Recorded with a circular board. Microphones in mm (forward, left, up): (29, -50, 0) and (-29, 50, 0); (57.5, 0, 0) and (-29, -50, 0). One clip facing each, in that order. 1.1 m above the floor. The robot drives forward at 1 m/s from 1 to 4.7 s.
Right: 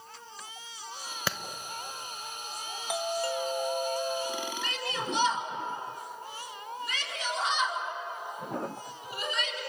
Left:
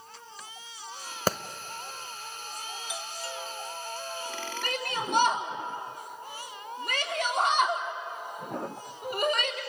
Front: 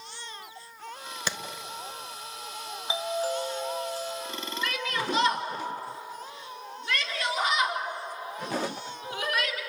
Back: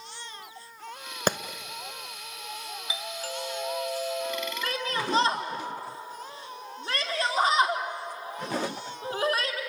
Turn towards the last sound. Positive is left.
turn(degrees=155)